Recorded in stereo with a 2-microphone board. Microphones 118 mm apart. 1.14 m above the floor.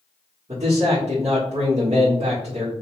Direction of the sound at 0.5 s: 70° right (ahead or behind).